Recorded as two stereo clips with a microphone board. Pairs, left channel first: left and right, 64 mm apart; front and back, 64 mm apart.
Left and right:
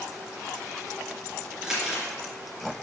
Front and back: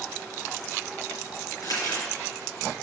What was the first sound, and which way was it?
Crumpling, 10° right.